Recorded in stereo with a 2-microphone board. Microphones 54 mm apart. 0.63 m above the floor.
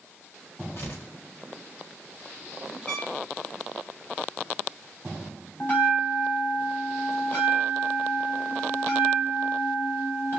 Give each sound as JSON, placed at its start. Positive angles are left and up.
{"t": 0.8, "sound": "tearing paper", "side_deg": 55, "distance_m": 1.5}
{"t": 2.9, "sound": "a trumpet", "side_deg": 15, "distance_m": 1.0}
{"t": 5.6, "sound": "a bell", "side_deg": 40, "distance_m": 3.0}